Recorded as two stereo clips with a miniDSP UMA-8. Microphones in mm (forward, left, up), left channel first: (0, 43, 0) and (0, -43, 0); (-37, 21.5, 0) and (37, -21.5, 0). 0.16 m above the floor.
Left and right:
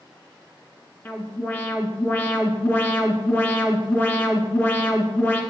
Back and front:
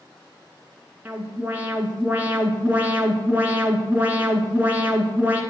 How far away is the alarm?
About 1.2 m.